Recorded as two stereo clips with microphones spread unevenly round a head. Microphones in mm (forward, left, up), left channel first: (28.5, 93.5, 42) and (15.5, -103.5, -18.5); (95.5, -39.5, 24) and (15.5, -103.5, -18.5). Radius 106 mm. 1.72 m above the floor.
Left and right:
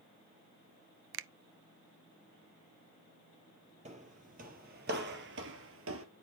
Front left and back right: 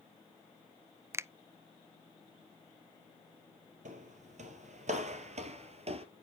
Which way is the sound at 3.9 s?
160° right.